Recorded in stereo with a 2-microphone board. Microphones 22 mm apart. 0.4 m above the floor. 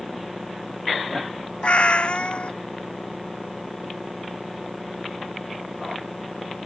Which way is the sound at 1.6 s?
70° left (ahead or behind).